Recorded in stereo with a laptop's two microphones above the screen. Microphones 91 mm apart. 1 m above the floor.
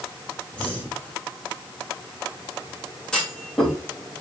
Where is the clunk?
10° left (ahead or behind), 3 m.